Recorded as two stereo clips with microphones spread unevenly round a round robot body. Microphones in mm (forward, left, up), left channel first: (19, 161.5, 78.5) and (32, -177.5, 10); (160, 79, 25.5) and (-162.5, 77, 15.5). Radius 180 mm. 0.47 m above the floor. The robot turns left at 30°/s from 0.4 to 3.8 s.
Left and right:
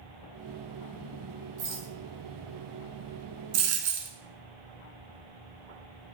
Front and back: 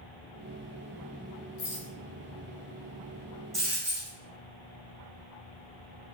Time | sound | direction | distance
1.6 | a rattle | 35° right | 1.3 m
3.5 | a dropped coin | 90° right | 0.9 m